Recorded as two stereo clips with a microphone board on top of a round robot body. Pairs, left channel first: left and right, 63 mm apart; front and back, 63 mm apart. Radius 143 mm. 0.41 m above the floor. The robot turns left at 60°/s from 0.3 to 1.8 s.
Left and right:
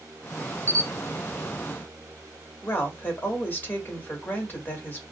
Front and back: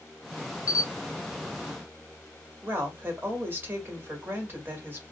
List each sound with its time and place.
0.7 s a camera shutter: 35° right, 0.5 m; by 0.9 s 50° right, 0.5 m
2.6 s a woman speaking: 140° left, 1.8 m